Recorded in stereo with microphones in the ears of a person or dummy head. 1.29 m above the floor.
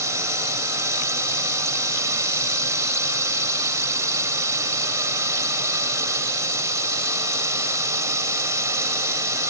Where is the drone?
20° right (ahead or behind).